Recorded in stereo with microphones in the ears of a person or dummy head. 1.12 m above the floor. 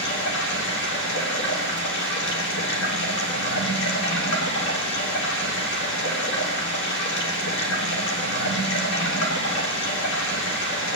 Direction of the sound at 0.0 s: 65° left (ahead or behind).